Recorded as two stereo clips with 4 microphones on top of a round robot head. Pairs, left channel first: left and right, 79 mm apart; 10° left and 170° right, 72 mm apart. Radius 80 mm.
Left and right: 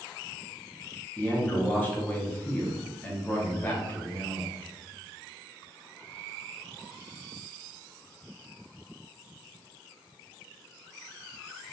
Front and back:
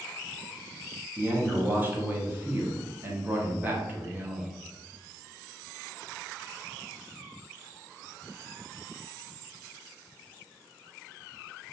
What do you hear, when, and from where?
1.2 s a man speaking: 145° left, 0.8 m